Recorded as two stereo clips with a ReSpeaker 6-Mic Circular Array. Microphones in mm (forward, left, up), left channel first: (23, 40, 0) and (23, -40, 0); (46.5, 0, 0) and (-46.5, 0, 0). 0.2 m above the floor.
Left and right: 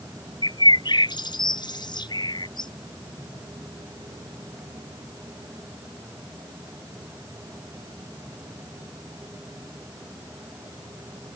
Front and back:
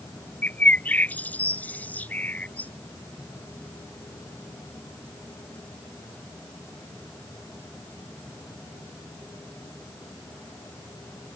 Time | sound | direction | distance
0.4 | a bird | 75° left | ?